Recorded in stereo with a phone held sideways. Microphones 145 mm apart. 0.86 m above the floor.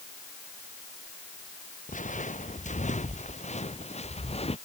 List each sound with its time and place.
1.9 s footsteps: 60° left (ahead or behind); by 4.6 s 45° left (ahead or behind)